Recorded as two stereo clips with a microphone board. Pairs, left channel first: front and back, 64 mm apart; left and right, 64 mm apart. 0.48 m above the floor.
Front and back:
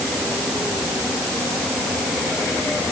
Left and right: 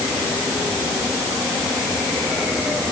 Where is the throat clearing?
I don't hear throat clearing.